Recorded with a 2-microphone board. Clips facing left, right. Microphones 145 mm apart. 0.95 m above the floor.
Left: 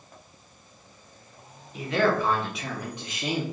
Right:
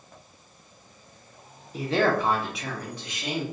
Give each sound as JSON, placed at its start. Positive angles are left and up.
{"t": 1.7, "sound": "a man speaking", "side_deg": -35, "distance_m": 0.8}